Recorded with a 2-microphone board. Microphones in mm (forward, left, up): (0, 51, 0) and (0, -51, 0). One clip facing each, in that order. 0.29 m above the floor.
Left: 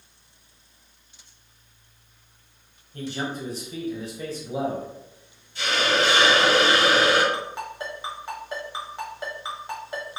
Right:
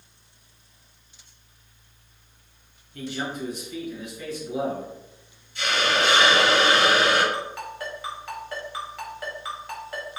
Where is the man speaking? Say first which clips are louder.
Left 1 dB; 35° left (ahead or behind), 1.2 m.